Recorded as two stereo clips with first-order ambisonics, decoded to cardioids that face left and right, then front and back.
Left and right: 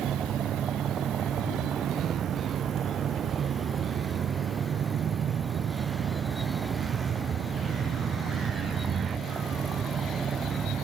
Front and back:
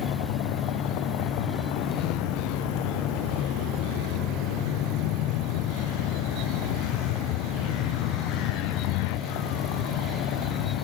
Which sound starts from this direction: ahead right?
A vehicle, at 0.0 s.